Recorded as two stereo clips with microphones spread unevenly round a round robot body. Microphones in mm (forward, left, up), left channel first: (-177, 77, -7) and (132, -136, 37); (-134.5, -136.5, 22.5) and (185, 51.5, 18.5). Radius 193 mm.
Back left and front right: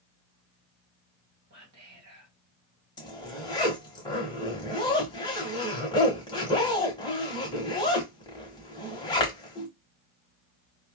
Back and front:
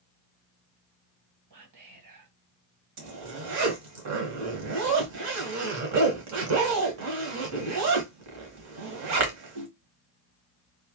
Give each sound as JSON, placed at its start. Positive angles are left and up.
{"t": 1.5, "sound": "whispering", "azimuth_deg": 15, "distance_m": 1.7}
{"t": 3.0, "sound": "a zipper", "azimuth_deg": 70, "distance_m": 1.1}